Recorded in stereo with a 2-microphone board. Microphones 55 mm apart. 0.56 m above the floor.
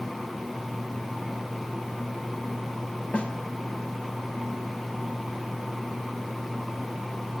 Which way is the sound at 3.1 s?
20° left (ahead or behind).